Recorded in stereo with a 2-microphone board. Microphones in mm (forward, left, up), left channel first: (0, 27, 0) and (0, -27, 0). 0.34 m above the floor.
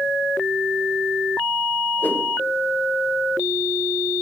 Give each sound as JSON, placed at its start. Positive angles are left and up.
{"t": 2.0, "sound": "a whoosh", "side_deg": 40, "distance_m": 1.6}